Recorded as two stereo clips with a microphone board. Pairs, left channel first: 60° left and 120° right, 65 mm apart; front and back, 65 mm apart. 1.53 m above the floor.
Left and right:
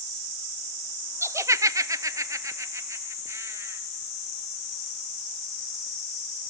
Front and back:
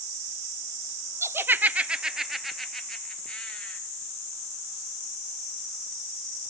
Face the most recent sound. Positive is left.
turn(degrees=-75)